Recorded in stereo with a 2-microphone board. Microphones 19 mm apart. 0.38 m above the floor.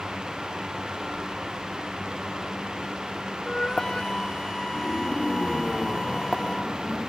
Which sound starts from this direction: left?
A flute, at 3.5 s.